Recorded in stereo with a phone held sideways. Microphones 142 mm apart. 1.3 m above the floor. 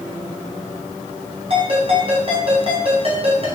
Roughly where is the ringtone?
Right.